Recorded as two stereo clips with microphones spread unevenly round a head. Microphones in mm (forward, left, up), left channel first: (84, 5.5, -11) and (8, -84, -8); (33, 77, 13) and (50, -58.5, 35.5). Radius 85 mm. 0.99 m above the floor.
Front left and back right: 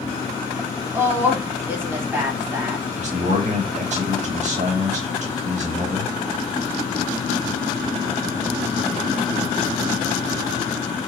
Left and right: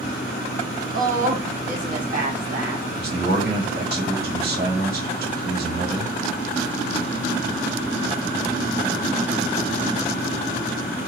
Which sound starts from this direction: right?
A man speaking, at 3.0 s.